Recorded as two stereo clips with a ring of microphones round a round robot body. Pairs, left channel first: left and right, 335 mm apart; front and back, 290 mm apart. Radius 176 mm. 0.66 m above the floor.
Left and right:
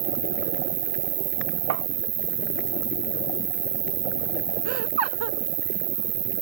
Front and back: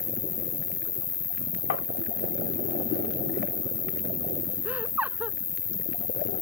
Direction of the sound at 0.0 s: 70° right.